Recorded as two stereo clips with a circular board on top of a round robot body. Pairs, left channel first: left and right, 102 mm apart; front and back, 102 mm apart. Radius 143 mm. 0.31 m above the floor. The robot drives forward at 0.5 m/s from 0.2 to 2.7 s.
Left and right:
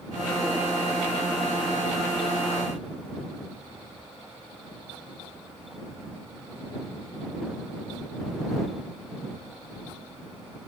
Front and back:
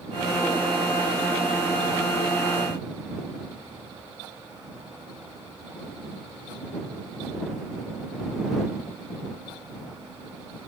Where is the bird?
I don't hear a bird.